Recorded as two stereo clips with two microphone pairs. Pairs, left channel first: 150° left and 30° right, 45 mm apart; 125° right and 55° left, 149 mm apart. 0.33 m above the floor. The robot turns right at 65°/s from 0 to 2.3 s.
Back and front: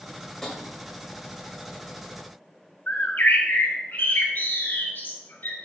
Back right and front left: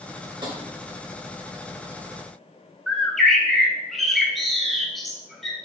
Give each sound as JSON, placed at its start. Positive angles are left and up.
{"t": 0.4, "sound": "tapping", "azimuth_deg": 75, "distance_m": 1.8}
{"t": 2.9, "sound": "a bird", "azimuth_deg": 145, "distance_m": 1.2}